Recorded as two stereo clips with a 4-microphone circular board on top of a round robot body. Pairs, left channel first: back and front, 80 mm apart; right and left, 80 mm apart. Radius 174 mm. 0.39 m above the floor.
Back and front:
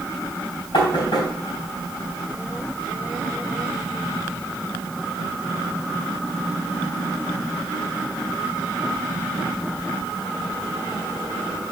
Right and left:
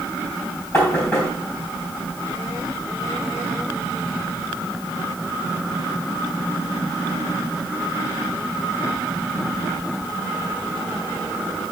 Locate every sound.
0.7 s knocking: 150° right, 3 m